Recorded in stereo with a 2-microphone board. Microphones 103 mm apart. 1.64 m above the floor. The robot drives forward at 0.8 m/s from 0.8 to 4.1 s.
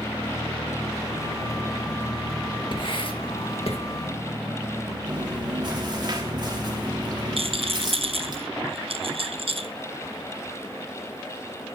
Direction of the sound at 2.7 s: 50° left (ahead or behind).